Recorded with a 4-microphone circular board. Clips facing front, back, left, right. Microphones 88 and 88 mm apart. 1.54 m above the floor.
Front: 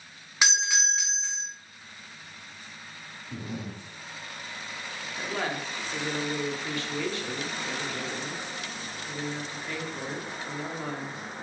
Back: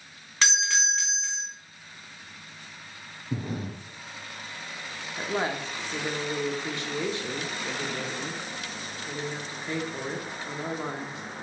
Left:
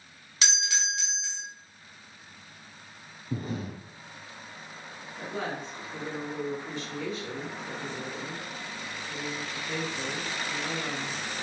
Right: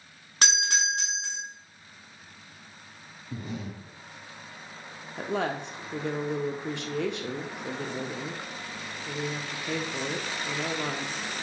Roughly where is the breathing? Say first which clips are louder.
Back 4 dB, left 3 dB; behind left.